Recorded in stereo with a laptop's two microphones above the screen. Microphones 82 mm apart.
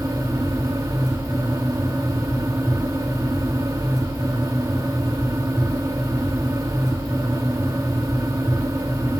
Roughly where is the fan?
Right.